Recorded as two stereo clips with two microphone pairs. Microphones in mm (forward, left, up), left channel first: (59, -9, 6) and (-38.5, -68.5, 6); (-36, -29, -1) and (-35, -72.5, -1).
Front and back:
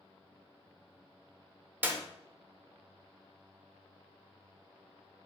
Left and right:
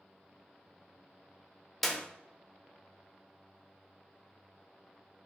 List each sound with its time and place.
1.8 s a clap: straight behind, 0.6 m